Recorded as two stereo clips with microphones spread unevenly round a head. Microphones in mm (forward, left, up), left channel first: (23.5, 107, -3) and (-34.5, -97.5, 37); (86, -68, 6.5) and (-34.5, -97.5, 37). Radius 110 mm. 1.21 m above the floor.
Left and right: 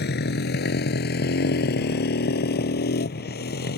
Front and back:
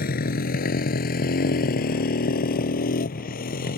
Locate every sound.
0.0 s a motorcycle: 25° left